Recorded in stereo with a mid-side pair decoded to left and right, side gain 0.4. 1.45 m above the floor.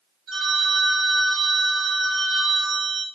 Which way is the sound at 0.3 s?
65° right.